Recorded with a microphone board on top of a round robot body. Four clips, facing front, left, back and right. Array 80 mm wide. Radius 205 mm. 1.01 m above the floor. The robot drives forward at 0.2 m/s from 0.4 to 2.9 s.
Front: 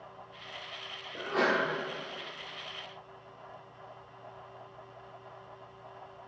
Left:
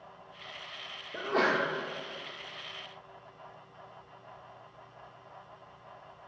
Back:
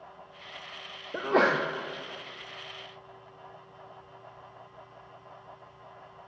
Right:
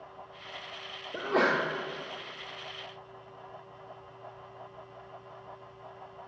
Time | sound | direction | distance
1.1 | a sneeze | 165° right | 0.5 m